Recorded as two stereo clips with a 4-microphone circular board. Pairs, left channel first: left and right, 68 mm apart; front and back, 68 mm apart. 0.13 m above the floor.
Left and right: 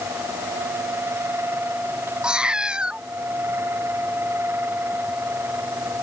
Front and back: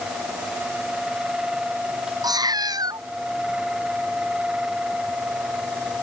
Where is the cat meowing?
165° right.